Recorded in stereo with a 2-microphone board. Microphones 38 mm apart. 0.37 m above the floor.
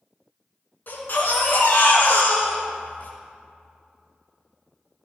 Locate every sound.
0.9 s a baby crying: 60° left (ahead or behind), 3 m